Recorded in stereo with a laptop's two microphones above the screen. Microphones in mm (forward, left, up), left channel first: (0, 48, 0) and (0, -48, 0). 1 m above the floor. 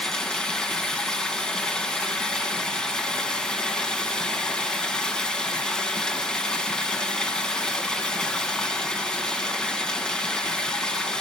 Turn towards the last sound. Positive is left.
turn(degrees=10)  # may be behind; listen again after turning